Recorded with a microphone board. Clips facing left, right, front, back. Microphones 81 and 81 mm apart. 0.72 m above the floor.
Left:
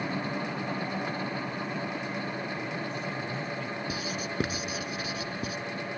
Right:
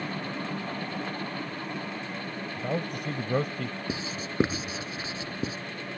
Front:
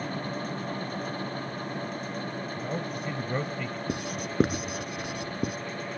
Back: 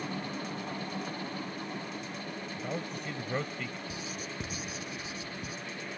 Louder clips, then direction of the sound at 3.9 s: Left 1 dB, front 7 dB; 30° right.